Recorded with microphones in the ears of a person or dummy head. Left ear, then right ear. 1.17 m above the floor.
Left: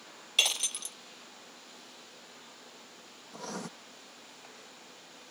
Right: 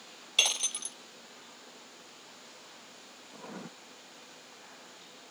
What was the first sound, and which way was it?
Breaking glass, centre (ahead or behind).